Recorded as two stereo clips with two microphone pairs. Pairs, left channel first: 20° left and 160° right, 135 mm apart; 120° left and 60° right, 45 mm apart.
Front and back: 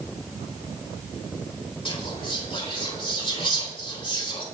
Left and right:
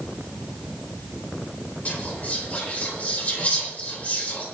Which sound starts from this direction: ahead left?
Whispering, at 1.9 s.